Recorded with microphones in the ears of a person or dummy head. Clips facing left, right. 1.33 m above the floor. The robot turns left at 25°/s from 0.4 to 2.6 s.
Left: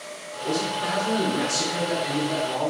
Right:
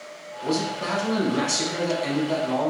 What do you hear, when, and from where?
0.4 s a man speaking: 60° right, 1.0 m; by 2.7 s 115° right, 1.0 m